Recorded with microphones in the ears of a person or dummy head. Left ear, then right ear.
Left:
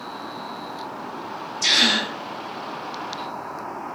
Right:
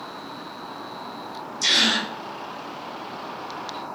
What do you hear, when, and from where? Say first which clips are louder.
1.6 s a gasp: left 1 dB; 25° right (ahead or behind), 1.4 m